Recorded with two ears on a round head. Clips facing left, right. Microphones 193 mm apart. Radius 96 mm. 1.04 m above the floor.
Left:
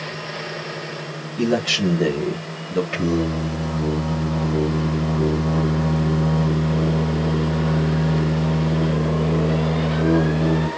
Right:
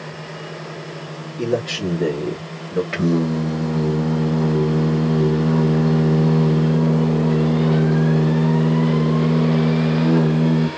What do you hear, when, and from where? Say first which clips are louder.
1.4 s a man speaking: left 1 dB; 65° left (ahead or behind), 1.4 m; by 2.8 s 45° left (ahead or behind), 1.3 m
2.9 s singing: right 5 dB; 20° right (ahead or behind), 1.6 m